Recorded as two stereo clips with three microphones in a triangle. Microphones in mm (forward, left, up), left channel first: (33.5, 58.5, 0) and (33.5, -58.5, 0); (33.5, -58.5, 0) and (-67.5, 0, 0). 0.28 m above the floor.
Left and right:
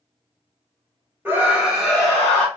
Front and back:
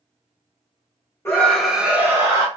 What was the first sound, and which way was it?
A scream, 55° right.